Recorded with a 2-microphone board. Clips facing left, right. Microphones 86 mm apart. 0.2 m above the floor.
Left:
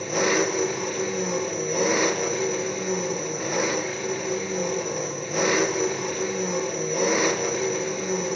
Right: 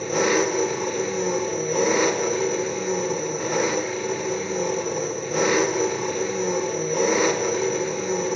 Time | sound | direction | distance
0.0 | an engine running | centre (ahead or behind) | 2 m